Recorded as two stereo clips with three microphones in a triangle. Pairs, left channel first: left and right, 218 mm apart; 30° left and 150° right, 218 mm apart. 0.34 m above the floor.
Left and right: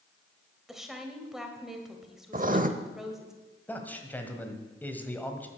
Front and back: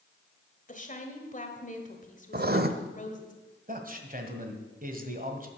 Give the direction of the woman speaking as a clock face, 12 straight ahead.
12 o'clock.